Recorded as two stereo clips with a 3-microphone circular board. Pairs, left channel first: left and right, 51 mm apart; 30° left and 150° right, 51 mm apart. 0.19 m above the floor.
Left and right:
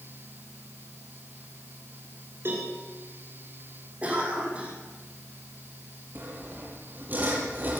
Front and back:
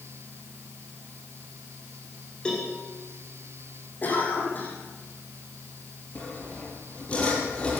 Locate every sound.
2.5 s a cowbell: 45° right, 5.5 m
4.0 s a cough: 25° right, 10 m
6.2 s sawing: 35° right, 6 m